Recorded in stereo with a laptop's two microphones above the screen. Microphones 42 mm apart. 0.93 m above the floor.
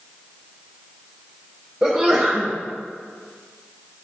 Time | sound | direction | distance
1.8 | a sneeze | 25° right (ahead or behind) | 0.7 m